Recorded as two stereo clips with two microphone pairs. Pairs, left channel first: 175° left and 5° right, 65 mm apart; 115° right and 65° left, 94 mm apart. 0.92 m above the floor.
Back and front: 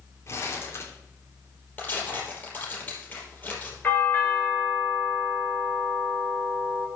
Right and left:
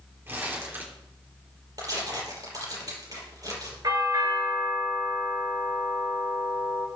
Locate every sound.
0.3 s crumpling: 130° left, 3.5 m
1.8 s tearing paper: 110° left, 5 m
3.8 s a doorbell: 110° left, 5.5 m